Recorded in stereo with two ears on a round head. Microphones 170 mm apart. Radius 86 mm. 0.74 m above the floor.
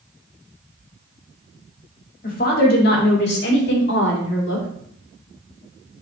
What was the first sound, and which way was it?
A woman speaking, 45° left (ahead or behind).